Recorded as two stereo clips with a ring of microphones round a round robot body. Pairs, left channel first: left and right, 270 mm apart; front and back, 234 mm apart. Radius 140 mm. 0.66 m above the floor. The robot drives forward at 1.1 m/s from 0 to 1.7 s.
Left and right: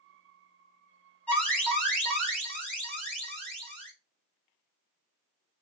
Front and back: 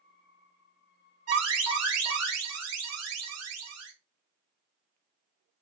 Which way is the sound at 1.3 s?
175° left.